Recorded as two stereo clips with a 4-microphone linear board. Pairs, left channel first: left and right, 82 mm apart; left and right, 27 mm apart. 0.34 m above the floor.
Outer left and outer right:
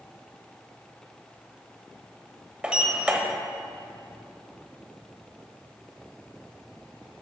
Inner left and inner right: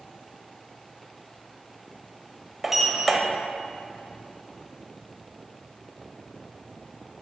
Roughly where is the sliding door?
Centre.